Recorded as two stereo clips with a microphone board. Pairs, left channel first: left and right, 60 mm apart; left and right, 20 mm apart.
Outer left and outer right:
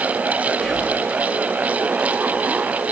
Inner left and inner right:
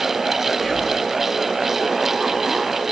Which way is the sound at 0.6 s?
10° left (ahead or behind).